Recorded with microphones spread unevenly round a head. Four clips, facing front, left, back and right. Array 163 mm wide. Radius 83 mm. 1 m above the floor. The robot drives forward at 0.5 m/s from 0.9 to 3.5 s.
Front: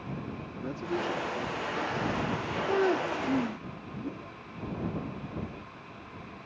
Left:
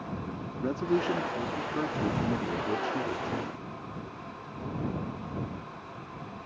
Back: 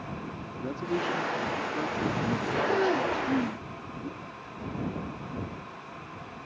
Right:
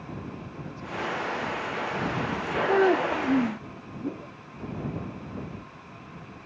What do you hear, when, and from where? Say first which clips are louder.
0.6 s a man speaking: left 8 dB, back 2 dB; 105° left; by 3.7 s 130° left
2.7 s a child speaking: right 13 dB, front 1 dB; 80° right; by 3.7 s 100° right
4.0 s a whoosh: right 7 dB, front 2 dB; 85° right